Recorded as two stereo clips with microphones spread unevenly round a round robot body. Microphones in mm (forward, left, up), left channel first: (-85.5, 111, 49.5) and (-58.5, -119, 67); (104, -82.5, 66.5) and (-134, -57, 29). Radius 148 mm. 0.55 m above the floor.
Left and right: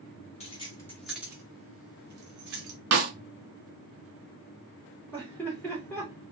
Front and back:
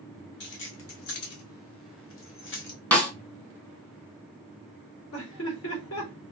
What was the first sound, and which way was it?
Keys jangling, 40° left.